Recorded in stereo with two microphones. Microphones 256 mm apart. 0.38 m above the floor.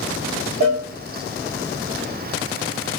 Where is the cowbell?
40° right (ahead or behind), 6 m.